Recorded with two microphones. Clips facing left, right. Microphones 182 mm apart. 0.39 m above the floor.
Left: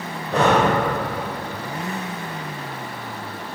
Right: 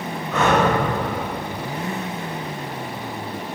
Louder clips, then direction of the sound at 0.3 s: Left 1 dB; 30° left (ahead or behind).